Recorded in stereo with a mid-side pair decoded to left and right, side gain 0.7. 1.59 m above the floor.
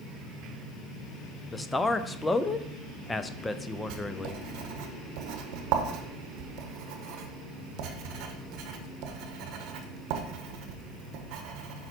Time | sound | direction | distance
1.5 | a man speaking | 15° left | 0.5 m
3.9 | writing | 60° right | 1.0 m